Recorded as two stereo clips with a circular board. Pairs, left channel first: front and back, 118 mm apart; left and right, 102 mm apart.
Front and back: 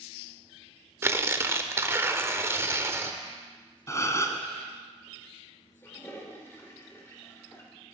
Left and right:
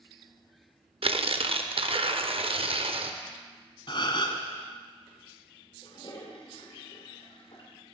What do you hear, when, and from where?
1.0 s tearing paper: 110° right, 0.5 m
3.9 s a gasp: 60° left, 0.9 m
5.8 s a toilet flushing: 65° left, 1.5 m